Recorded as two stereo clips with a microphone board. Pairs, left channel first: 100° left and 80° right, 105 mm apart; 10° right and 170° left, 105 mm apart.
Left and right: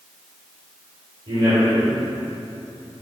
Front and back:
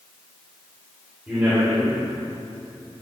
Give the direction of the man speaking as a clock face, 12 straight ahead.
4 o'clock.